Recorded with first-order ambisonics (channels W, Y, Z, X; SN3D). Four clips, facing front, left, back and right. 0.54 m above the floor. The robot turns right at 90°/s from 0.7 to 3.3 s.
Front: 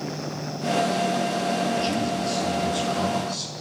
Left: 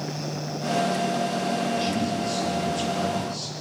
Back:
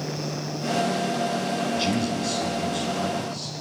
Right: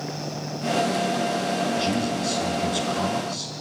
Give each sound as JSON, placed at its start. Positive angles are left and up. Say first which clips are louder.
{"t": 1.8, "sound": "a man speaking", "louder": "right 1 dB, even", "azimuth_deg": -175, "distance_m": 6.0}